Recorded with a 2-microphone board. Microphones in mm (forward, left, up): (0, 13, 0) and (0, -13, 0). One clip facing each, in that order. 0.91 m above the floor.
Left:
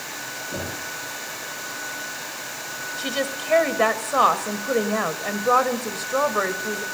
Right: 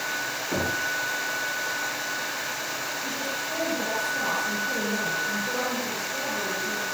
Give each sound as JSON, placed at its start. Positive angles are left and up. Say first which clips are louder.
{"t": 0.5, "sound": "knocking", "louder": "right 6 dB", "side_deg": -45, "distance_m": 6.0}
{"t": 3.0, "sound": "a woman speaking", "louder": "left 3 dB", "side_deg": 80, "distance_m": 3.5}